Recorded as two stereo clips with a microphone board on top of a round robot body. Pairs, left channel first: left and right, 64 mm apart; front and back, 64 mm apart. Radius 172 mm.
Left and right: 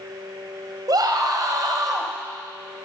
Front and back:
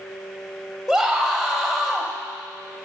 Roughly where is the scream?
Right.